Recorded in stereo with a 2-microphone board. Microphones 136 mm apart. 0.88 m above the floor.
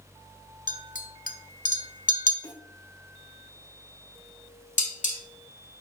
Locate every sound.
0.7 s a clink: 85° left, 1.1 m
2.4 s a snare drum: 30° left (ahead or behind), 1.5 m
4.8 s dishes clattering: 65° left (ahead or behind), 1.8 m